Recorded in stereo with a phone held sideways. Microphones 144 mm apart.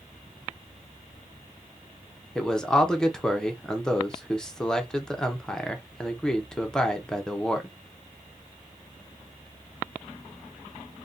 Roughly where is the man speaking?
Centre.